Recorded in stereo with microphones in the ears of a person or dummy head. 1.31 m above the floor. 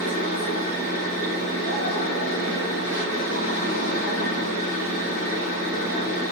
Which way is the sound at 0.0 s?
50° left (ahead or behind).